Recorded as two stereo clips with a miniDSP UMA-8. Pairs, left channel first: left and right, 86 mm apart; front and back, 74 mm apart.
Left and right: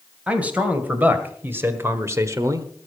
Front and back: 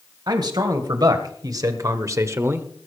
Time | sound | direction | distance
0.3 | a man speaking | 165° right | 2.5 m